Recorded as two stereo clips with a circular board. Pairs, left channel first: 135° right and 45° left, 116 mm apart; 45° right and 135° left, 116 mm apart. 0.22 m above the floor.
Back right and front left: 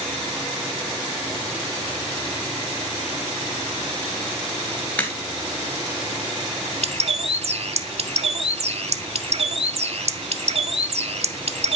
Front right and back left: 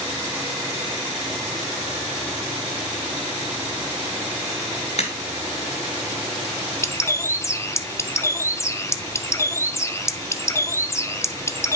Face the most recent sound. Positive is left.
turn(degrees=20)